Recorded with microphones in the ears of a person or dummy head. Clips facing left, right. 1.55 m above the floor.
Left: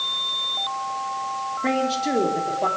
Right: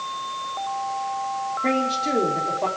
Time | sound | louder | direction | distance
1.6 | a man speaking | left 2 dB | 10° left (ahead or behind) | 4 m